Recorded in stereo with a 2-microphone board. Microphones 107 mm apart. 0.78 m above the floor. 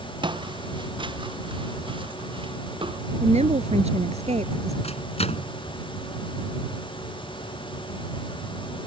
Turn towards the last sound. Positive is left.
turn(degrees=75)  # may be behind; listen again after turning